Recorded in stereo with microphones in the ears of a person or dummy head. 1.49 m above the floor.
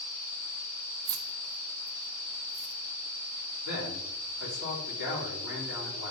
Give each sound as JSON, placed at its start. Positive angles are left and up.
{"t": 1.1, "sound": "keys jangling", "side_deg": -25, "distance_m": 0.5}
{"t": 3.6, "sound": "a man speaking", "side_deg": 70, "distance_m": 3.0}